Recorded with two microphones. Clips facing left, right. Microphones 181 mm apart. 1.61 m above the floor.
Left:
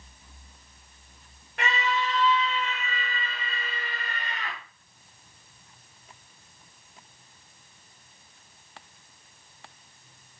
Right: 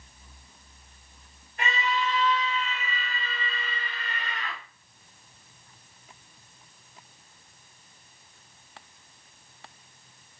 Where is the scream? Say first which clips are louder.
Left 1 dB; 75° left (ahead or behind), 1.4 m; by 4.6 s 35° left (ahead or behind), 2.5 m.